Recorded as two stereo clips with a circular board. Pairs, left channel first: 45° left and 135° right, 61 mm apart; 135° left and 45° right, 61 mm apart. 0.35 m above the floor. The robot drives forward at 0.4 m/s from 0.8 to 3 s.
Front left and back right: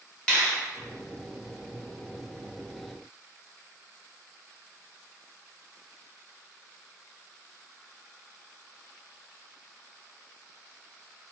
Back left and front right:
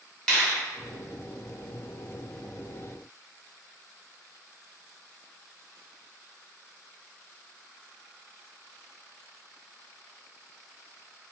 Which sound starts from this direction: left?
A finger snap, at 0.3 s.